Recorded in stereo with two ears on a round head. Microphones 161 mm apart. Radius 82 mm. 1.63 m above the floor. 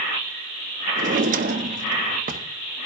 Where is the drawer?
45° right (ahead or behind), 1.0 m.